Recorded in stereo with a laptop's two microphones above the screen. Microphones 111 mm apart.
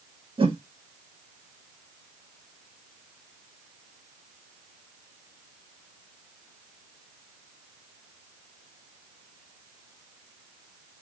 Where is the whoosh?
55° right (ahead or behind), 0.6 m.